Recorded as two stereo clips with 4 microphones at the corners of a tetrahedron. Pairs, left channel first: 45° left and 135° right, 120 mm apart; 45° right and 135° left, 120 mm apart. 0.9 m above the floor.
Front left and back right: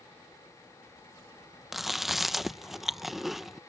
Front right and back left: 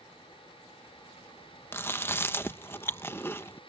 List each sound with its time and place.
1.7 s chewing: 50° right